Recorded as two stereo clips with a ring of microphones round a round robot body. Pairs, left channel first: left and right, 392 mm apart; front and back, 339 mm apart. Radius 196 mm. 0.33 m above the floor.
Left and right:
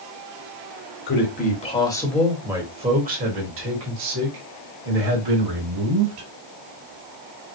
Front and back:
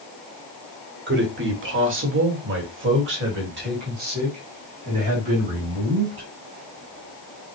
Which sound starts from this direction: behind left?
A man speaking, at 1.1 s.